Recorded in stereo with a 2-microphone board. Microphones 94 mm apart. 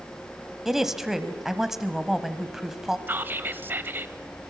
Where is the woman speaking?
5° right (ahead or behind), 1.4 m.